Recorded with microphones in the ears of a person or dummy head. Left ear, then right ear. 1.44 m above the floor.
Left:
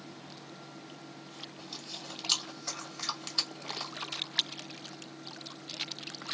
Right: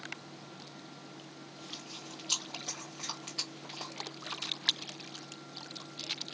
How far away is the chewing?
About 1.7 m.